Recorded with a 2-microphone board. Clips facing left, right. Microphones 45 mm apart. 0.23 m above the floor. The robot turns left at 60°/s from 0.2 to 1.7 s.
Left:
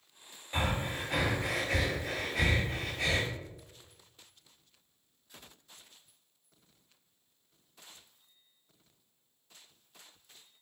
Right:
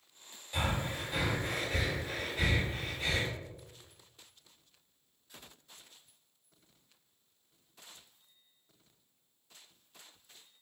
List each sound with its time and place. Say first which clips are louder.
0.5 s breathing: left 2 dB; 30° left (ahead or behind), 1.0 m; by 3.3 s 75° left (ahead or behind), 1.0 m